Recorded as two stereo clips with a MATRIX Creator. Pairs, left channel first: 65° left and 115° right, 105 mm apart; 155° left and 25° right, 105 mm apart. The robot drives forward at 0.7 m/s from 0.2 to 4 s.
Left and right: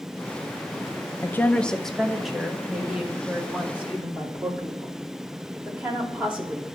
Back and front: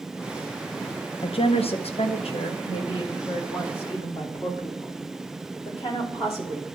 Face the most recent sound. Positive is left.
turn(degrees=170)